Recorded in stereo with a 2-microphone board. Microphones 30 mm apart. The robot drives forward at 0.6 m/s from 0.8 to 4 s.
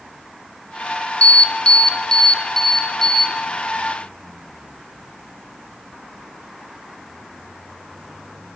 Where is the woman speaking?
No woman speaking in this recording.